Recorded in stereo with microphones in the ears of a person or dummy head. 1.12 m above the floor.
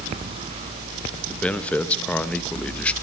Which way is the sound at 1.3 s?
5° left (ahead or behind).